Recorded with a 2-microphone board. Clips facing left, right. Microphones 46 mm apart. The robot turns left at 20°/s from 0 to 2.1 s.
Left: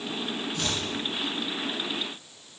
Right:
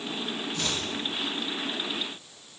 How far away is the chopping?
About 3 m.